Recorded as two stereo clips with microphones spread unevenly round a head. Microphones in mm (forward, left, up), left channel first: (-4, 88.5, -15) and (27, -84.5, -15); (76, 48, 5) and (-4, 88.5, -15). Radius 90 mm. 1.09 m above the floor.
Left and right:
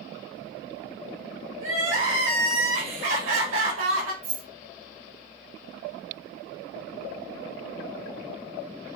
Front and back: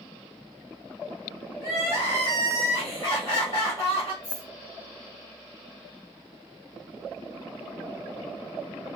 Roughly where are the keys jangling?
Behind right.